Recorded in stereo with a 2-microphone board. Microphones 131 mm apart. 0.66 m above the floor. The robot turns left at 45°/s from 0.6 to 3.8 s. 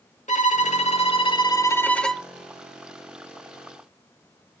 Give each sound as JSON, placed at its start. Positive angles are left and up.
{"t": 0.3, "sound": "a violin", "azimuth_deg": 75, "distance_m": 1.1}